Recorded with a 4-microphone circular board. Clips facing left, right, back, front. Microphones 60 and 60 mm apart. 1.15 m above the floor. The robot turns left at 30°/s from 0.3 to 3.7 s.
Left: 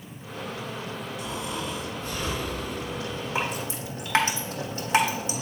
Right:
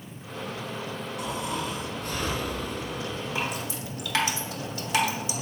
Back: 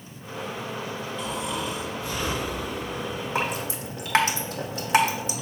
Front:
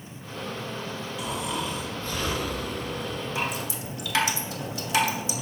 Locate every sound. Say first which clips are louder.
1.2 s snoring: right 3 dB, even; 80° right, 2.5 m; by 3.2 s 140° right, 2.5 m
3.4 s dripping: left 4 dB, back 5 dB; 150° left, 1.5 m; by 5.3 s 140° left, 1.5 m